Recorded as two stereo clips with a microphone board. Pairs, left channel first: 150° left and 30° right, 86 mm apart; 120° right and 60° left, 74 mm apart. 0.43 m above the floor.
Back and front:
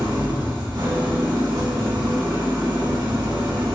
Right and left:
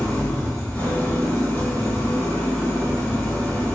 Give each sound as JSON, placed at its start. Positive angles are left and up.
{"t": 0.0, "sound": "an engine running", "azimuth_deg": -55, "distance_m": 2.5}